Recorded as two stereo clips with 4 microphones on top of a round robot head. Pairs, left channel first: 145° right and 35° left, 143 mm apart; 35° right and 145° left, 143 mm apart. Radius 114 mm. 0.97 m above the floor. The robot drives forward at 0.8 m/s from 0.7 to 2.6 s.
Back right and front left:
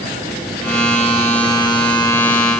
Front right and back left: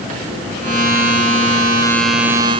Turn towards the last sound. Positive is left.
No sound to turn to.